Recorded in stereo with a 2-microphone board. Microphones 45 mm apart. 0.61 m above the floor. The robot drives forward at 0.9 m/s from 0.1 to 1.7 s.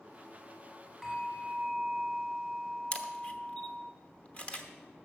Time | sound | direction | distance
1.0 | a bell | 5° left (ahead or behind) | 2.5 m
2.9 | a camera shutter | 30° left (ahead or behind) | 0.9 m